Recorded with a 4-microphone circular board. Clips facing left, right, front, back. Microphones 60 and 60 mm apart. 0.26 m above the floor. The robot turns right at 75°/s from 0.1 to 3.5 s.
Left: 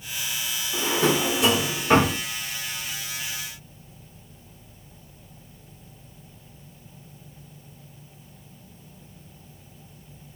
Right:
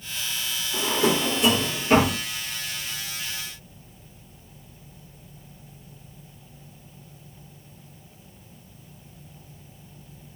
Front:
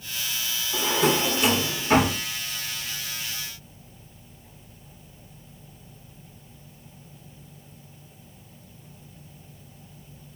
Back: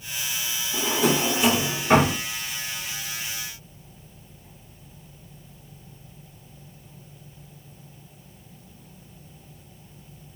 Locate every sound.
0.7 s a drawer: 35° left, 1.5 m; by 2.2 s 145° left, 1.5 m